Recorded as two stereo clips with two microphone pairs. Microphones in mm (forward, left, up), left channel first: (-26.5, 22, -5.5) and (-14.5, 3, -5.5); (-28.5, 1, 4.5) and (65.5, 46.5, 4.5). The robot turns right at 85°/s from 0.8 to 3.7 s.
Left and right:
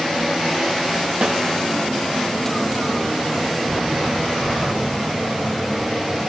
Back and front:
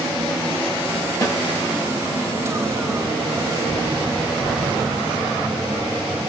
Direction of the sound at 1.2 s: 100° right.